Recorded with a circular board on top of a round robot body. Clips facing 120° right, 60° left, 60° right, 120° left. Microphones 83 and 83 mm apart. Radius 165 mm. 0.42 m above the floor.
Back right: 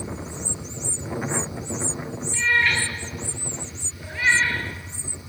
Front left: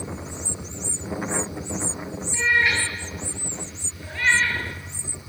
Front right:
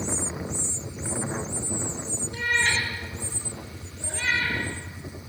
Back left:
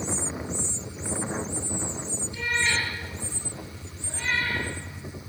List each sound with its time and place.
2.3 s a cat meowing: 15° right, 4.5 m; by 4.6 s 40° right, 4 m